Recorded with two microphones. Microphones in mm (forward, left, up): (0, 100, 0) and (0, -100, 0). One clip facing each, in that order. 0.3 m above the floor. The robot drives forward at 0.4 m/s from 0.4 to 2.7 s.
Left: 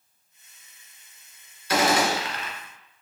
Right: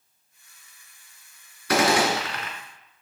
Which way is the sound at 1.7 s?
70° right (ahead or behind).